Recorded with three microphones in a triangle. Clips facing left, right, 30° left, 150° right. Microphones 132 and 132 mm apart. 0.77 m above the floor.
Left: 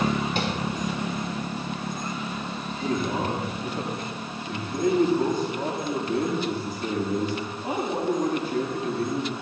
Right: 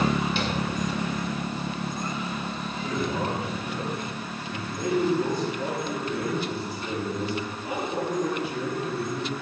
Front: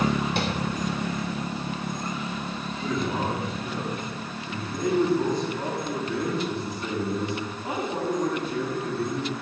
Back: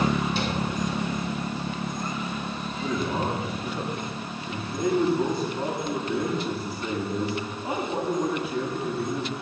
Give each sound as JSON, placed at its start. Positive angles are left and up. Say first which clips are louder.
{"t": 0.4, "sound": "tapping", "louder": "left 1 dB, front 1 dB", "azimuth_deg": 50, "distance_m": 3.0}
{"t": 2.8, "sound": "a man speaking", "louder": "left 2 dB, even", "azimuth_deg": 125, "distance_m": 6.0}